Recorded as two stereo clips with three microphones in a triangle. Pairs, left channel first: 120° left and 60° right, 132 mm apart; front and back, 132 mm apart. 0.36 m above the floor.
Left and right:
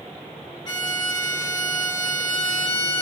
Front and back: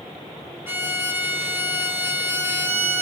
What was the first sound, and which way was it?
A violin, 120° left.